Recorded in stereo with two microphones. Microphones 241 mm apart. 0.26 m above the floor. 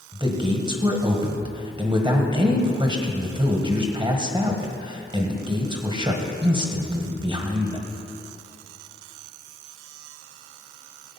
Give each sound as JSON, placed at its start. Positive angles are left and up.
{"t": 0.1, "sound": "a man speaking", "side_deg": -20, "distance_m": 1.4}